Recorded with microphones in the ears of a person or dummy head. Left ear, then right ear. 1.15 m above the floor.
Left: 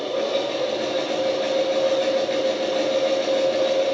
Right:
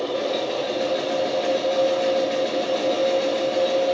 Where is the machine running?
5° left (ahead or behind), 1.9 m.